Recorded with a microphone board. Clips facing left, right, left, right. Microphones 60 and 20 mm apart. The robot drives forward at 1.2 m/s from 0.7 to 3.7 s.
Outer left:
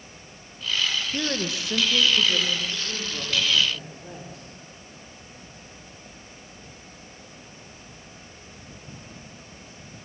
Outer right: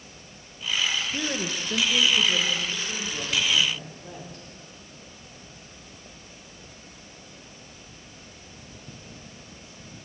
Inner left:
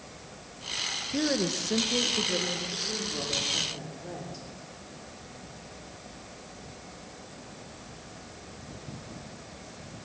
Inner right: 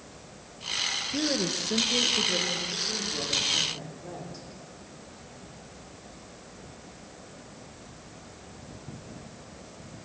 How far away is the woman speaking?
About 0.8 m.